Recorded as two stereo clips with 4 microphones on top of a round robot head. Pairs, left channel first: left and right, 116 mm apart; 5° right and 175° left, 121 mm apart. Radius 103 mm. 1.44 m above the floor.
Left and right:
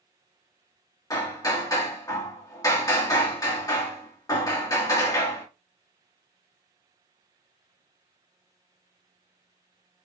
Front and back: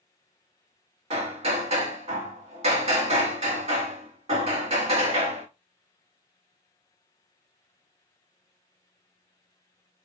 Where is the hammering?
145° left, 1.5 m.